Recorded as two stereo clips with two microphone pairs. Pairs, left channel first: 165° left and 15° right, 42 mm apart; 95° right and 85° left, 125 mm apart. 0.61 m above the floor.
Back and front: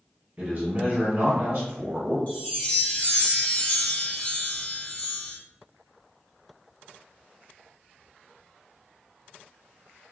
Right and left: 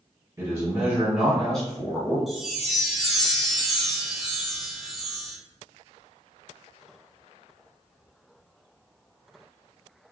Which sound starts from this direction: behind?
A chime, at 2.3 s.